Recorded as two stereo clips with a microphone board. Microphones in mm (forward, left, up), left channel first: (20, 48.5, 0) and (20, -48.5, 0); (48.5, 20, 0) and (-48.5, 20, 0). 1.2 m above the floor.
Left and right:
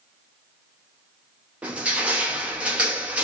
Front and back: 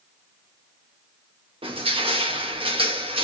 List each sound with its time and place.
1.6 s crushing: 165° right, 0.8 m